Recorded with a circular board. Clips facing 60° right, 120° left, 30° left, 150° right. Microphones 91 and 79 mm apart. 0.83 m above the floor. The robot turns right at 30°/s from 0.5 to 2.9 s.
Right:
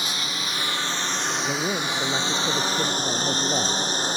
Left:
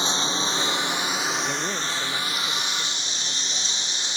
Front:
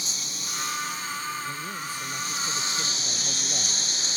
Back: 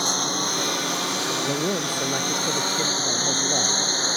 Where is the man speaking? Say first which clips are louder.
Right 2 dB, back 9 dB; 140° right; by 3.9 s 100° right.